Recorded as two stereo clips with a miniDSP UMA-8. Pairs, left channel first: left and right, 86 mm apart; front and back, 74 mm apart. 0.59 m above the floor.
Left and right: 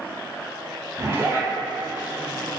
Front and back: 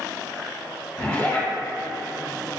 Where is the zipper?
45° right, 1.4 m.